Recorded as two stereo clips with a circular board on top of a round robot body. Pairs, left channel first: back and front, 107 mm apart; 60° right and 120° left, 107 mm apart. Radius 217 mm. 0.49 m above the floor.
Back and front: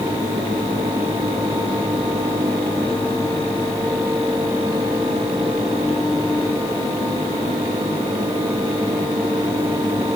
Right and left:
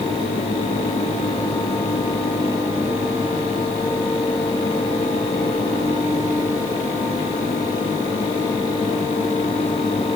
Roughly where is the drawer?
No drawer in this recording.